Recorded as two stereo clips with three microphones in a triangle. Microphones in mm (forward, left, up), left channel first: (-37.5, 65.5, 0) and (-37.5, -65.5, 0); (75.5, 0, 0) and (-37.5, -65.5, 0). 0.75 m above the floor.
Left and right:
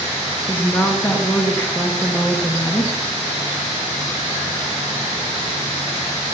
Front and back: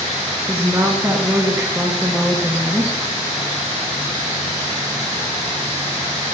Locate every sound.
0.5 s a woman speaking: 155° left, 1.2 m